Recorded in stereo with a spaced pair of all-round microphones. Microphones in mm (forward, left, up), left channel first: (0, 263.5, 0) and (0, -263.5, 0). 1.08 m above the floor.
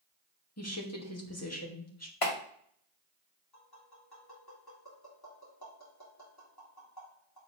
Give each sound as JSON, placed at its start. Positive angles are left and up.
{"t": 0.6, "sound": "a woman speaking", "side_deg": 30, "distance_m": 2.0}
{"t": 2.2, "sound": "a clap", "side_deg": 80, "distance_m": 1.9}
{"t": 3.5, "sound": "tapping", "side_deg": 45, "distance_m": 3.0}